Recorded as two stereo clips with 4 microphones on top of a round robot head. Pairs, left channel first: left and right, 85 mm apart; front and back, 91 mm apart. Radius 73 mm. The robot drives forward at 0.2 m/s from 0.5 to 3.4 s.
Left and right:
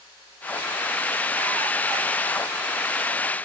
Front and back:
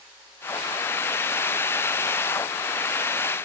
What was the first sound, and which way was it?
Only background noise.